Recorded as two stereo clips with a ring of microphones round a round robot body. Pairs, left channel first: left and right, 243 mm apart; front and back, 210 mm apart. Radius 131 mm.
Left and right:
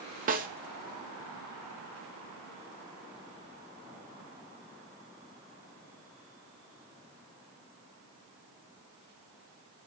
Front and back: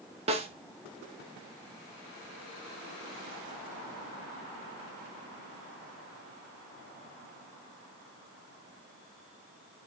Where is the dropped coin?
No dropped coin in this recording.